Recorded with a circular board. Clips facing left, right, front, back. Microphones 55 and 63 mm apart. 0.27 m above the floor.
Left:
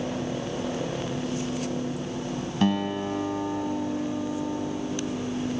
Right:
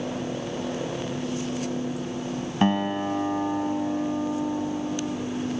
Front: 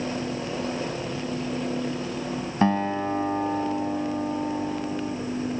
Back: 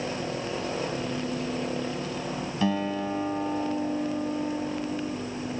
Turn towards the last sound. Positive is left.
turn(degrees=-35)